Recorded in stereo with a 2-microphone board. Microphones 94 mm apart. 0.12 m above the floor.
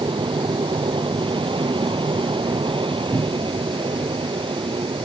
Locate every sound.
0.0 s an aircraft: 65° right (ahead or behind)
3.1 s a cupboard door: 25° right (ahead or behind)